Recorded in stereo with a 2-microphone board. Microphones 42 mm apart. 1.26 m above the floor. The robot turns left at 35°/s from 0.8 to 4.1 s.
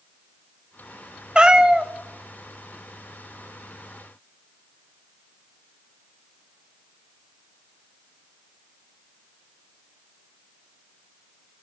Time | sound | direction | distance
1.4 | a cat meowing | 25° right (ahead or behind) | 0.6 m